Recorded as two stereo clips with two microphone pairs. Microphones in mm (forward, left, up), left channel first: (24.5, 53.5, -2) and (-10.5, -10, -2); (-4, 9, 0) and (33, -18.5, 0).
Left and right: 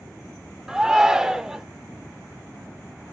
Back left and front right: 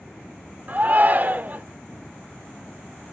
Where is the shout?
40° right, 1.0 m.